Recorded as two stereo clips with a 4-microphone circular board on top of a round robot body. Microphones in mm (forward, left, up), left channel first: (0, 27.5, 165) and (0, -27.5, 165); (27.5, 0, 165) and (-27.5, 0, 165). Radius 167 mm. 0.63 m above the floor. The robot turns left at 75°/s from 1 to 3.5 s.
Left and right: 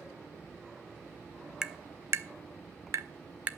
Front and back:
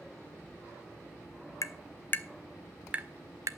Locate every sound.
1.6 s tapping: 15° right, 0.8 m; by 3.5 s 155° right, 0.8 m